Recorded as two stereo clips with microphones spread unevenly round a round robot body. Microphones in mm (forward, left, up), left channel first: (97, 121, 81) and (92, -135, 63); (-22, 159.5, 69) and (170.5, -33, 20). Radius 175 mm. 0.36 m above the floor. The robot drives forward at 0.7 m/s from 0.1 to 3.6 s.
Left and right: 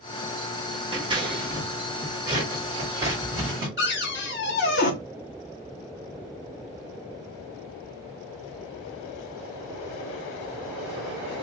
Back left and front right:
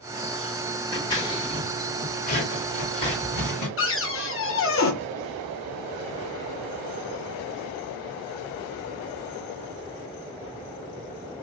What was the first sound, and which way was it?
Scissors, 135° right.